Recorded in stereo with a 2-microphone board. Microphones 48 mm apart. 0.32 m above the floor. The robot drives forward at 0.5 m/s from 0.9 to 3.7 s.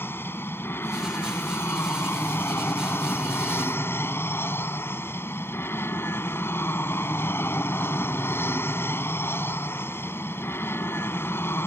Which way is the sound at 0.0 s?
50° left (ahead or behind).